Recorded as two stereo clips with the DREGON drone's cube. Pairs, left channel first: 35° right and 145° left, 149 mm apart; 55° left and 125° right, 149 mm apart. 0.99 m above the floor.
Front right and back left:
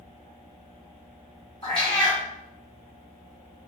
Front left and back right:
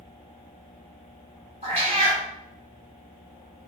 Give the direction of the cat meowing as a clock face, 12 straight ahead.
3 o'clock.